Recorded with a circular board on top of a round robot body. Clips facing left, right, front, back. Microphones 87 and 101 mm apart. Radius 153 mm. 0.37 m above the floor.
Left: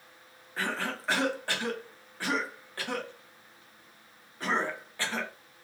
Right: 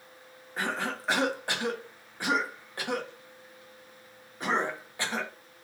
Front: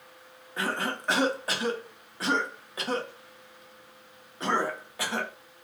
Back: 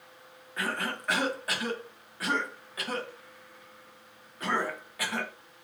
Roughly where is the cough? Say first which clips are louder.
Right 1 dB, front 2 dB; ahead right.